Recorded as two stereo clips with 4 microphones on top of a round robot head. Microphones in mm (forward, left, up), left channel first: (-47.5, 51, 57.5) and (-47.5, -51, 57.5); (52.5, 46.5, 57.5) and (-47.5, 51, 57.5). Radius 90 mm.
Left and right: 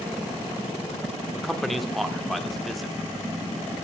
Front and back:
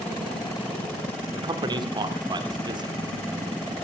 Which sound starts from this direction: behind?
A man speaking, at 1.3 s.